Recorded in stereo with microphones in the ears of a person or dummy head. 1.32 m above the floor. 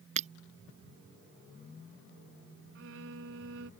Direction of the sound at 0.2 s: 45° right (ahead or behind).